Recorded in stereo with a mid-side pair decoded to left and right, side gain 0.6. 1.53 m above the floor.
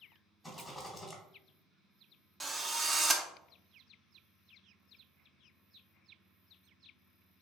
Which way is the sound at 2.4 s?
15° right.